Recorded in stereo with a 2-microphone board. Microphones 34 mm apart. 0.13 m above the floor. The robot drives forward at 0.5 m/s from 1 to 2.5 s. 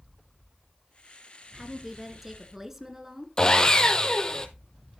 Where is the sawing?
25° left (ahead or behind), 0.9 m.